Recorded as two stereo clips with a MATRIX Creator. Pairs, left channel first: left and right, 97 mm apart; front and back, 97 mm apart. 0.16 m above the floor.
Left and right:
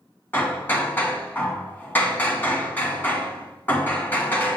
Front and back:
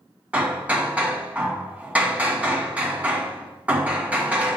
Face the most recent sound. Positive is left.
turn(degrees=130)